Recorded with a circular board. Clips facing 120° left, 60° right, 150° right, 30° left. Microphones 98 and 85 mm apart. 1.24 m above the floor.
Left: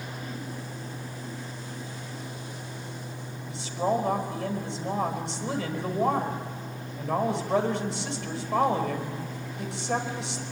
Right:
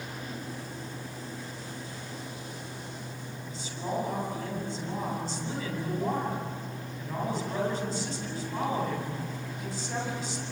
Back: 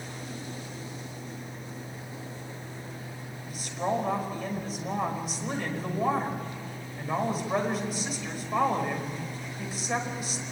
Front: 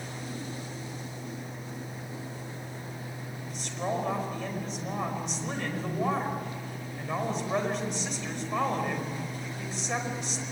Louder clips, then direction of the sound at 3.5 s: Left 7 dB, back 3 dB; 125° left.